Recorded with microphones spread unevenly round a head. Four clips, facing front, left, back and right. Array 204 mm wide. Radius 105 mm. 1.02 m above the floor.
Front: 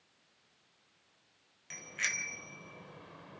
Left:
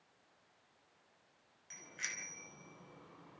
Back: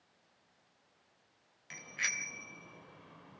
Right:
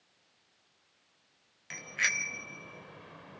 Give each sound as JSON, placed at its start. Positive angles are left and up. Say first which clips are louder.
{"t": 1.7, "sound": "a bicycle bell", "louder": "right 14 dB, front 1 dB", "azimuth_deg": -85, "distance_m": 4.0}